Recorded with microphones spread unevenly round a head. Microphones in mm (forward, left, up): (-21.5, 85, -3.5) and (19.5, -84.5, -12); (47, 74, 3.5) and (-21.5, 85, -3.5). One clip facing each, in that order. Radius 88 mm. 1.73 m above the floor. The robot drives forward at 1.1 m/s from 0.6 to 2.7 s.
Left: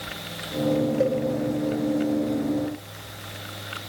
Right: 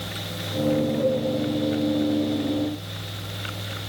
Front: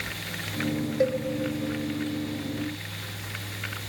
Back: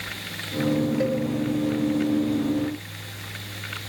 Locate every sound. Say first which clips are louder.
1.0 s a cowbell: even, even; 65° left, 2.5 m